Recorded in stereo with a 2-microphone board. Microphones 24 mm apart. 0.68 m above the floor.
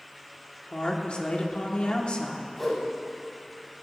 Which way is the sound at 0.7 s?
45° left (ahead or behind).